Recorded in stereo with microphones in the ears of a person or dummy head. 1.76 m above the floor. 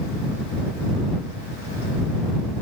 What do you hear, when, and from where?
Only background noise.